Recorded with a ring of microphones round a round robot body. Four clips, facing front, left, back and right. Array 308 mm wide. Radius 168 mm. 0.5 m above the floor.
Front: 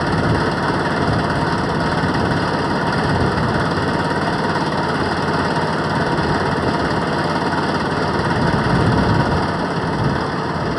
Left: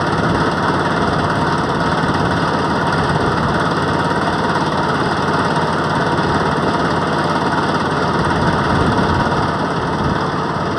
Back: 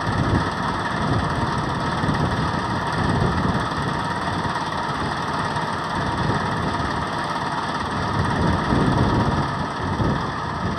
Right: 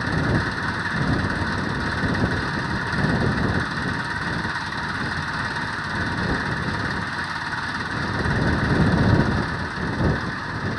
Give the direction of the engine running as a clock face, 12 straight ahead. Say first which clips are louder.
Left 8 dB, front 5 dB; 10 o'clock.